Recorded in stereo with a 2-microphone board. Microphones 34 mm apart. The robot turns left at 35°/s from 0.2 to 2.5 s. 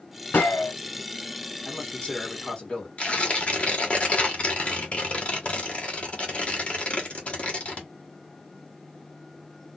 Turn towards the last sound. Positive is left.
turn(degrees=40)  # may be behind; listen again after turning